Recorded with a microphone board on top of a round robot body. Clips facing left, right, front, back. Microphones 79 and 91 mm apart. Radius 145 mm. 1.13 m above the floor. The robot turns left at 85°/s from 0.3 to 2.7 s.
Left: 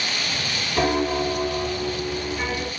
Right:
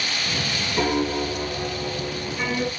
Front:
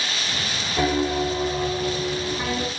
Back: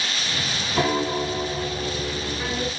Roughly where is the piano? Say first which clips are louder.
Left 2 dB, front 1 dB; behind left.